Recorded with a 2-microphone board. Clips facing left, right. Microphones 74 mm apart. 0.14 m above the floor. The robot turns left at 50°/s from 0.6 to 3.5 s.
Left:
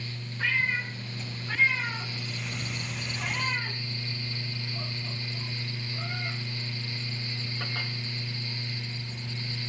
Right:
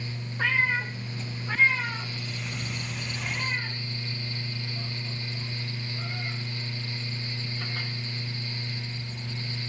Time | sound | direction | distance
0.4 | a cat meowing | 60° right (ahead or behind) | 6.5 m